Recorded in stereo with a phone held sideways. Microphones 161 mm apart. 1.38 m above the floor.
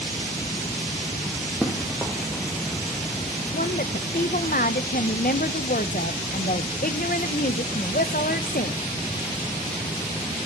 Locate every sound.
1.6 s running footsteps: centre (ahead or behind), 3.5 m; by 3.4 s 5° right (ahead or behind), 5 m
3.5 s a woman speaking: 65° left (ahead or behind), 0.8 m